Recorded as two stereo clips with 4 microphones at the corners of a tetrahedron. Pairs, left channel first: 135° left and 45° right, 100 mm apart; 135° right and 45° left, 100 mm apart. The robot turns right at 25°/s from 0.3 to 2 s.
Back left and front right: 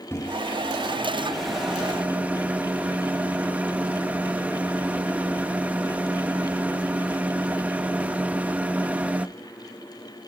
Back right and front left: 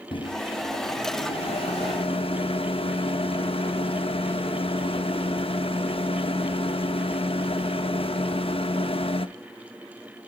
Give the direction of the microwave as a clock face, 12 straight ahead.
5 o'clock.